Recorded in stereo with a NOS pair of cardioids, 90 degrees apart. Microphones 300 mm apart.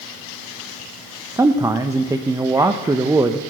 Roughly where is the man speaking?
Ahead.